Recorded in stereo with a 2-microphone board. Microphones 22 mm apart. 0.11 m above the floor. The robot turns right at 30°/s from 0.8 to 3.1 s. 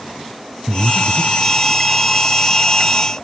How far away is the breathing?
About 2 m.